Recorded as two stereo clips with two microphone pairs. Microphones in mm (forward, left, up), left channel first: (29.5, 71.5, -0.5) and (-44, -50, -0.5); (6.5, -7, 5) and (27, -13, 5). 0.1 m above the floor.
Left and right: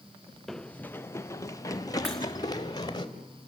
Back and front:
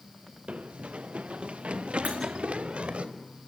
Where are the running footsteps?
30° right, 0.7 m; by 3.0 s straight ahead, 2.5 m.